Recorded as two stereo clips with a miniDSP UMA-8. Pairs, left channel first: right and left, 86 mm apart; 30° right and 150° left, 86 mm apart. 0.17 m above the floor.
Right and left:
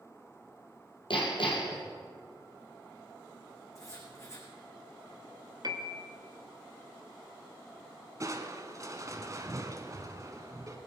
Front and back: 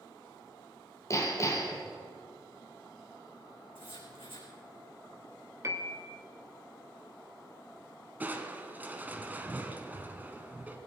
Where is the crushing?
90° left, 1.3 m.